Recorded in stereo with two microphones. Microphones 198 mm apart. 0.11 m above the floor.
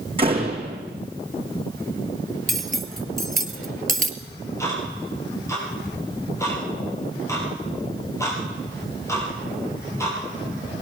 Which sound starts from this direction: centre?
Ticking, at 4.2 s.